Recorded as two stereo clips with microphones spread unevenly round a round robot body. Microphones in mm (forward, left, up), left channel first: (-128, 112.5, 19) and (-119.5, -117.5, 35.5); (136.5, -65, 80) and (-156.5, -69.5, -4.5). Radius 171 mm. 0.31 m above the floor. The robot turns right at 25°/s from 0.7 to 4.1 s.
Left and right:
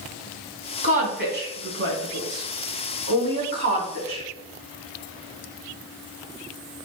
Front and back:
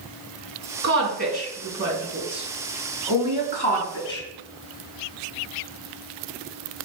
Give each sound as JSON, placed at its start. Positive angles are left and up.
{"t": 0.8, "sound": "a woman speaking", "azimuth_deg": -140, "distance_m": 3.5}